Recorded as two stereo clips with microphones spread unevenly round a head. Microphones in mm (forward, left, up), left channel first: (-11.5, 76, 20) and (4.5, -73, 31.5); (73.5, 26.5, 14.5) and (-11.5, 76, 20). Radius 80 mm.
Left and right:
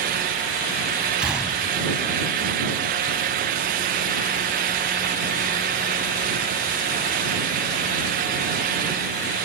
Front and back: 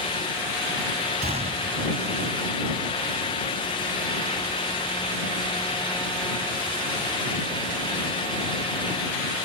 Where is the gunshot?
170° right.